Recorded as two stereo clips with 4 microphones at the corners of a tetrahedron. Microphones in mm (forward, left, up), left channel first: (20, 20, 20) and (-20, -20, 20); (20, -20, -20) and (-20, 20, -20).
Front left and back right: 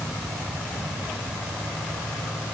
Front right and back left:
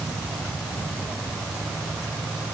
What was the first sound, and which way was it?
Only background noise.